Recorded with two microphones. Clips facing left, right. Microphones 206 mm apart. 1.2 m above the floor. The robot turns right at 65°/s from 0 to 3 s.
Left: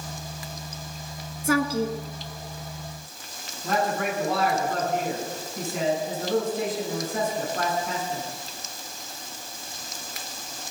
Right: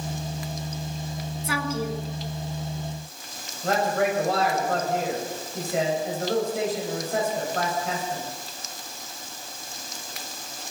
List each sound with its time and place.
1.4 s a woman speaking: 130° left, 1.6 m; by 2.0 s 160° left, 1.6 m
3.6 s a man speaking: 85° right, 7.5 m